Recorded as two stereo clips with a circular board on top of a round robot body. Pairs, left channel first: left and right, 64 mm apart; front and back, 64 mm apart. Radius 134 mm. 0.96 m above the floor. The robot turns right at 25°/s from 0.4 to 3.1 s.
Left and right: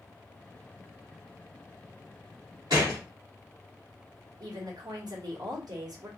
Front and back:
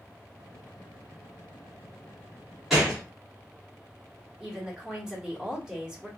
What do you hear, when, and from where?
2.7 s a gunshot: 95° right, 0.5 m; by 3.0 s 85° right, 0.5 m
4.4 s a woman speaking: 95° right, 1.4 m